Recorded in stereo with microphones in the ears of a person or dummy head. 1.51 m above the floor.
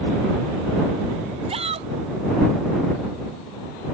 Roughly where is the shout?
Right.